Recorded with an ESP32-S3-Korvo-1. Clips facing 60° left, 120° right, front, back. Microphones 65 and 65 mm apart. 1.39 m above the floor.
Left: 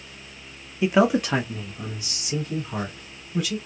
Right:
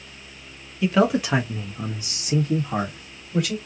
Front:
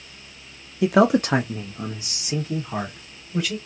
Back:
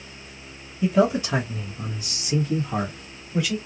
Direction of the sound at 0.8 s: 10° right.